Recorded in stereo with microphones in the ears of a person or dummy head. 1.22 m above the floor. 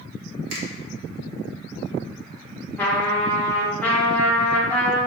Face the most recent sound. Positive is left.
turn(degrees=5)  # may be behind; listen again after turning